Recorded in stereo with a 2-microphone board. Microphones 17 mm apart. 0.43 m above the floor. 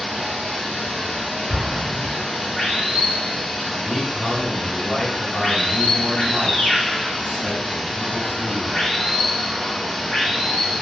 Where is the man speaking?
30° left (ahead or behind), 1.5 m.